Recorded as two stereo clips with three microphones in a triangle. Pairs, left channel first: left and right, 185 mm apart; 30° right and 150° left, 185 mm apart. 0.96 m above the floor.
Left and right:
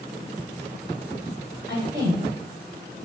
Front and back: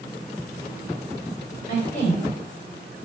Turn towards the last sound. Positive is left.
turn(degrees=-80)